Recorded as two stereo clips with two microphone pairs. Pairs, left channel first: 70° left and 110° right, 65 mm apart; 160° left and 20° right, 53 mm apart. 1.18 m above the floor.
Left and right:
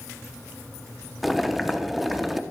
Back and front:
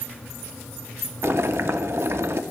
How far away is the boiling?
About 0.7 m.